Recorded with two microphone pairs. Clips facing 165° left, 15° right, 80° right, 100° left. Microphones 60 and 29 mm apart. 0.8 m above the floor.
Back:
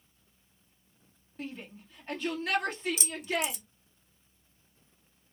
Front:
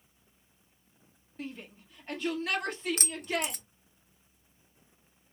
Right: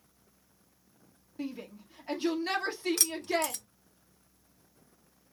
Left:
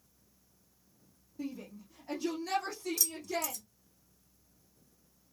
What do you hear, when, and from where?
1.4 s a shout: 100° right, 1.7 m
3.0 s keys jangling: 50° right, 0.6 m